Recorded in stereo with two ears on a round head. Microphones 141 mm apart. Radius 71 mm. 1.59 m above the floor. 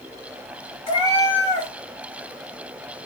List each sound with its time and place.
0.9 s a cat meowing: 35° left (ahead or behind), 1.9 m